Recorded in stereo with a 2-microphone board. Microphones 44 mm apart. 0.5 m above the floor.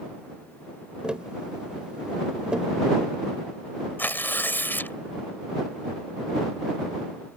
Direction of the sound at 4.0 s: 50° left (ahead or behind).